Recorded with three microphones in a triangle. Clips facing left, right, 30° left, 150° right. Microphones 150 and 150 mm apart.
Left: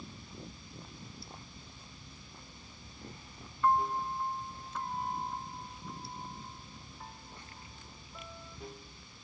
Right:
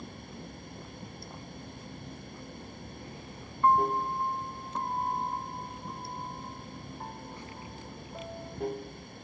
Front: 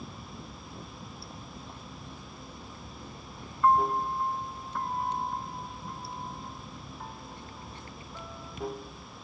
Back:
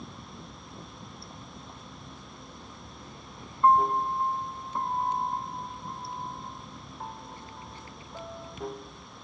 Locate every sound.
0.0 s running water: 60° right
3.6 s a piano: 105° right